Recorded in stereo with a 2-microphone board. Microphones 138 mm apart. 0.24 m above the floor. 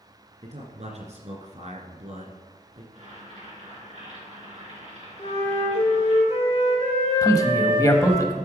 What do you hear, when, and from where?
0.4 s a man speaking: 55° right (ahead or behind), 2.5 m
2.9 s boiling: 55° right (ahead or behind), 4 m
5.2 s a flute: 50° left (ahead or behind), 3.5 m
7.2 s a man speaking: 25° left (ahead or behind), 1.0 m